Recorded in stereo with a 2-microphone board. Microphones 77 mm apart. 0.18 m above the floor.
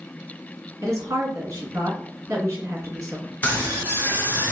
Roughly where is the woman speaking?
Right.